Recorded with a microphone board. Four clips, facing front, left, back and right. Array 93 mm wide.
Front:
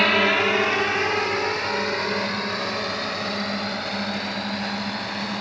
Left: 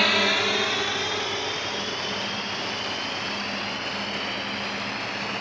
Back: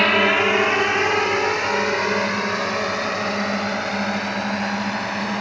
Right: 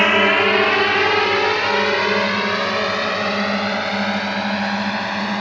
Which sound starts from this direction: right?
A drone, at 0.0 s.